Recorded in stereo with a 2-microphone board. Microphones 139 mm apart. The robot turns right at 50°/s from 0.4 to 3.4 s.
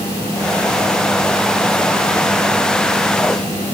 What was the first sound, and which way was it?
Only background noise.